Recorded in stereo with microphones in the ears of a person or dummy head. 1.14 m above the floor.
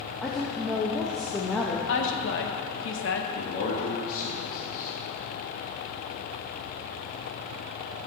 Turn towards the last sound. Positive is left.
turn(degrees=50)  # may be behind; listen again after turning